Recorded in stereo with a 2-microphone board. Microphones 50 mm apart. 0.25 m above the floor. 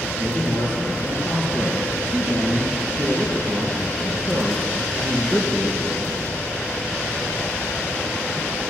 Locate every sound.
0.2 s a man speaking: 40° left (ahead or behind), 5 m